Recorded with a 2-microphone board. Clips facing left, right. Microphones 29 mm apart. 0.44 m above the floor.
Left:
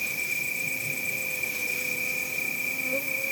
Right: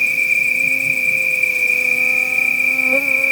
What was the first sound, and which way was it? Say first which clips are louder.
An insect: right 14 dB; 70° right (ahead or behind).